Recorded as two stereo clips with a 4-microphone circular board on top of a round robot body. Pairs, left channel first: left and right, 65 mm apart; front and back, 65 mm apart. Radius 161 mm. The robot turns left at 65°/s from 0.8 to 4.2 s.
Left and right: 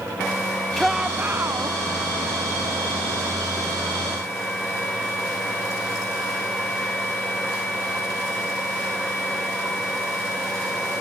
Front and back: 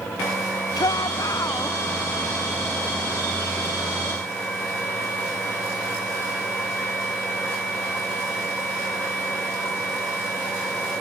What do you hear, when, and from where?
0.8 s a shout: straight ahead; by 1.8 s 65° right